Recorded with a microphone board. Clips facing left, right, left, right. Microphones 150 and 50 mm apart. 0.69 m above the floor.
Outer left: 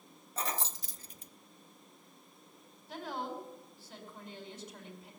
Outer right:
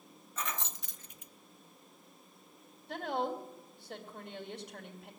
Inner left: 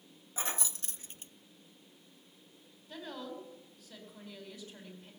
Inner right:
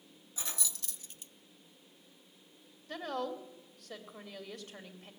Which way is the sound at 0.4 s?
35° left (ahead or behind).